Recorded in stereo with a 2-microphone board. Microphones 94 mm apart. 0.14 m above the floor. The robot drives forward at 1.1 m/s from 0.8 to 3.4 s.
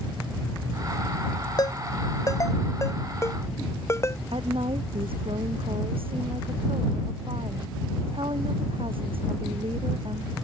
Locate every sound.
1.6 s a ringtone: 45° left (ahead or behind); by 4.2 s 30° left (ahead or behind)
4.3 s a woman speaking: 75° right (ahead or behind)